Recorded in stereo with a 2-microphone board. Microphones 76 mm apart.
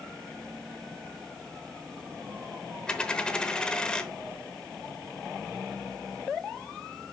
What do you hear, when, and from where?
2.9 s a dropped coin: 10° left (ahead or behind), 0.8 m